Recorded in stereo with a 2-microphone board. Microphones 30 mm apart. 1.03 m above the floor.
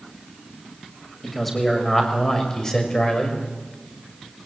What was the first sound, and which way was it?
A man speaking, 5° left (ahead or behind).